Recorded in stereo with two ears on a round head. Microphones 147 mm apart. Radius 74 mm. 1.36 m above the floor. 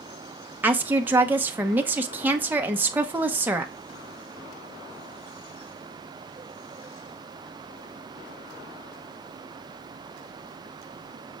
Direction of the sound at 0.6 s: 10° right (ahead or behind).